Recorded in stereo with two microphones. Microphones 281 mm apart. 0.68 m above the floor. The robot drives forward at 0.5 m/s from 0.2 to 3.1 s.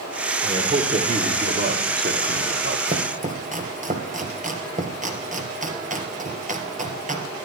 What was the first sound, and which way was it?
A man speaking, 20° right (ahead or behind).